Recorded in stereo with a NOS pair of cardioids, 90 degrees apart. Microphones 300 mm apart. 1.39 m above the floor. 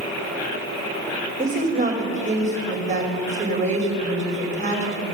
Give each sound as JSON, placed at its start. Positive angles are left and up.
{"t": 1.4, "sound": "a woman speaking", "azimuth_deg": -25, "distance_m": 5.0}